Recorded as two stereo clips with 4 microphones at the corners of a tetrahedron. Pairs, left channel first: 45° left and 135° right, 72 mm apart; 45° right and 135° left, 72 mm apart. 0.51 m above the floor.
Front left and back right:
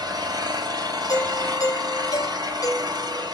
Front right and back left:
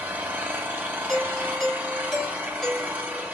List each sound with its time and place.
0.0 s an engine running: 160° right, 3 m
1.1 s a doorbell: 40° left, 3 m